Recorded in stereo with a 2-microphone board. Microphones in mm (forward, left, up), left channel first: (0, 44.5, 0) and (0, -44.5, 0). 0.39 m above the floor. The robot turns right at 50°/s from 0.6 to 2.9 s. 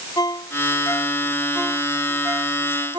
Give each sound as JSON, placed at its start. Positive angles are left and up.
{"t": 0.2, "sound": "a ringtone", "side_deg": 50}